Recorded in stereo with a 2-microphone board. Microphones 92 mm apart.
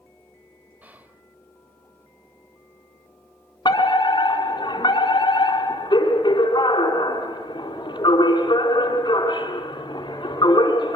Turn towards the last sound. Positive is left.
turn(degrees=50)  # may be behind; listen again after turning